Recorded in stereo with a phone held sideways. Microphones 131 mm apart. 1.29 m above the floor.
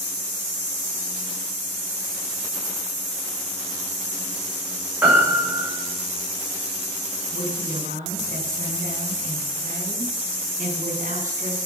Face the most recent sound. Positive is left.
turn(degrees=-90)